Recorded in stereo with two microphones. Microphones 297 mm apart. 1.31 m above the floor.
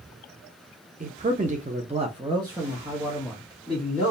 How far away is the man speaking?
About 0.6 m.